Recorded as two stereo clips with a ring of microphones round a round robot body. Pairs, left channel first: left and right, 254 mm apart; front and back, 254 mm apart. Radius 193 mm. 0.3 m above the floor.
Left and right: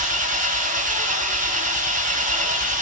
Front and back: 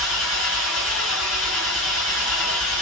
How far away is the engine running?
About 2.5 m.